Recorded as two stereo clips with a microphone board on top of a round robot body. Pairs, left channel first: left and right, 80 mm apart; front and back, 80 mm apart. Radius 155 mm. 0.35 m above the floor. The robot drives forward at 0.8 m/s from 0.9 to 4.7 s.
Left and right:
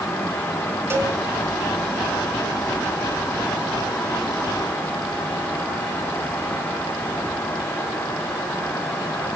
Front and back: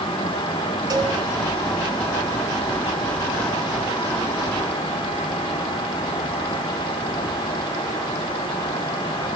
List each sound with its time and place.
0.9 s a cowbell: 150° right, 4 m